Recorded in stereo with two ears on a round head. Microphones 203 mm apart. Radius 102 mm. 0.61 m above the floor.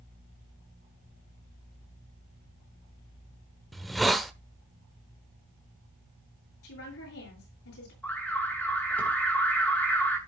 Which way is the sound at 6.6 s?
70° left (ahead or behind).